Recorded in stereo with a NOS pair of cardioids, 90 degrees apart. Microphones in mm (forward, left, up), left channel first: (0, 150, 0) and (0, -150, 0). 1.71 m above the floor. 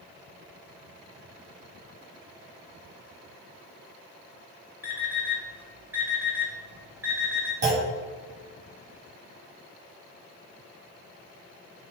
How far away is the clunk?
About 4.5 m.